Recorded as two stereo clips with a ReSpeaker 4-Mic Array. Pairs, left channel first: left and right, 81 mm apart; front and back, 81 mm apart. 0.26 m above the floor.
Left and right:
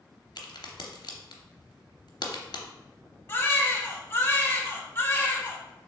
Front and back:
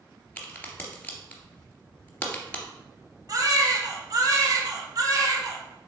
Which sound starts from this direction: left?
A crack, at 0.4 s.